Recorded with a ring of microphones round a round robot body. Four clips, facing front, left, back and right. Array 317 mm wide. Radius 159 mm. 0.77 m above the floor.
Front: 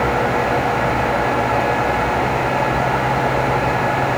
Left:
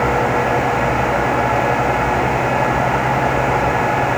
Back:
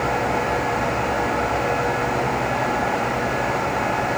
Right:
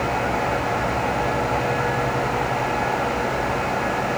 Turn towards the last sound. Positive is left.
No sound to turn to.